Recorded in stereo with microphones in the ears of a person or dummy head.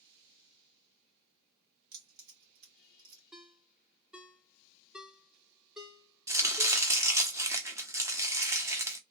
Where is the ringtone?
5° right (ahead or behind), 0.7 m.